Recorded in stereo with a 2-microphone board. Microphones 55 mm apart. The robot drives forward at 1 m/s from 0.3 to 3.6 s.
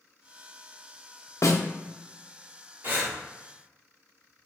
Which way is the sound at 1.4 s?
65° left (ahead or behind).